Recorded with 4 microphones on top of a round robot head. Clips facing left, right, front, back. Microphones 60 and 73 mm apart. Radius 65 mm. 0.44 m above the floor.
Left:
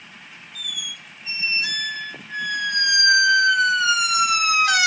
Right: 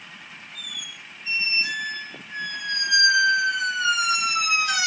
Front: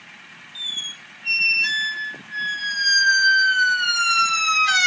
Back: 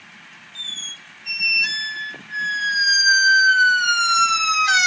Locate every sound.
0.6 s a squeak: 110° left, 0.7 m